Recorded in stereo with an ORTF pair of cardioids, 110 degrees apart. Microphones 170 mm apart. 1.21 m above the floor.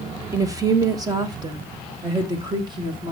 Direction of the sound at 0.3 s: 20° right.